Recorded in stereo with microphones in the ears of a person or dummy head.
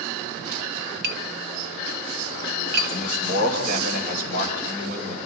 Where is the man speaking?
50° right (ahead or behind), 5 m.